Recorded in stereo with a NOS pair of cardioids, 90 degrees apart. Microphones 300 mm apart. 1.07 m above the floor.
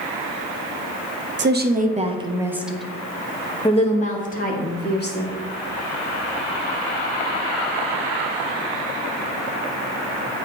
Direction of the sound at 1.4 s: 40° right.